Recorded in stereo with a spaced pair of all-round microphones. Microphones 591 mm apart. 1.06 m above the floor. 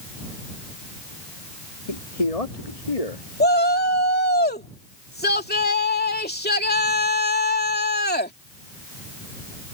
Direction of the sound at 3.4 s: 15° left (ahead or behind).